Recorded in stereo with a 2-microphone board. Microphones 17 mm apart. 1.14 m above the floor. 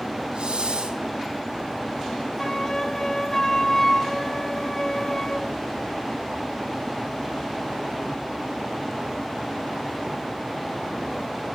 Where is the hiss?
60° right (ahead or behind), 4 m.